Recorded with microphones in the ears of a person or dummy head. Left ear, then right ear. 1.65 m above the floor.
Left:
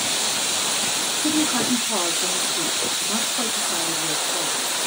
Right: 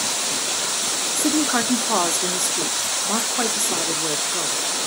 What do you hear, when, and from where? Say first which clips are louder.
1.1 s a woman speaking: right 2 dB; 45° right (ahead or behind), 0.8 m